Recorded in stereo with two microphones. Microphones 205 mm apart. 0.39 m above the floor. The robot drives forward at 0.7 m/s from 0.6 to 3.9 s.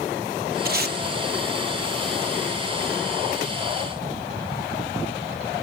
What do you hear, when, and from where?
0.7 s tape being pulled: 50° right (ahead or behind), 1.6 m; by 1.0 s 55° right (ahead or behind), 1.4 m